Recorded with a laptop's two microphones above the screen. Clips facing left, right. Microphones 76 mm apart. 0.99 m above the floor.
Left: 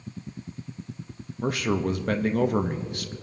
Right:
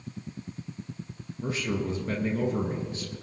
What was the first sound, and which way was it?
A man speaking, 70° left (ahead or behind).